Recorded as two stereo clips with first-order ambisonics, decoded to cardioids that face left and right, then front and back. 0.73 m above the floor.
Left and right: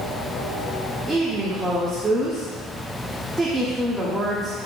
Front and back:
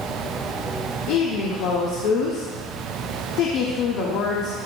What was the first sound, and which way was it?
A woman speaking, 10° right.